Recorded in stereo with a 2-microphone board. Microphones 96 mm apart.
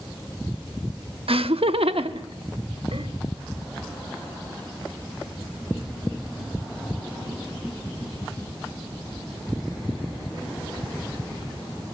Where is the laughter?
75° right (ahead or behind), 0.7 m; by 3.1 s 85° right, 2.0 m.